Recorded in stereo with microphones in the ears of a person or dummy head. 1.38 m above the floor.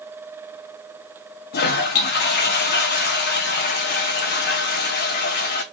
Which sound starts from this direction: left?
A toilet flushing, at 1.5 s.